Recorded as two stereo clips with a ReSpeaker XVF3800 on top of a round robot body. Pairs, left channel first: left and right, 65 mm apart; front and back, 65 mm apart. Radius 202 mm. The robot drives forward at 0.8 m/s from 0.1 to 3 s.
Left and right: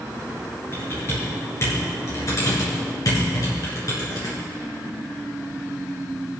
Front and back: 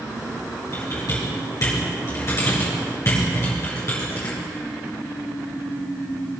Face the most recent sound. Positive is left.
turn(degrees=55)